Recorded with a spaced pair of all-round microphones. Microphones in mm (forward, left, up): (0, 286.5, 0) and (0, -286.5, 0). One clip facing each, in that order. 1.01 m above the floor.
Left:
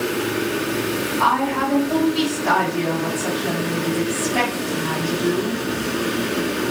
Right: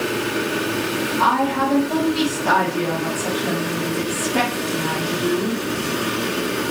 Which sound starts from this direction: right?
A woman speaking, at 1.2 s.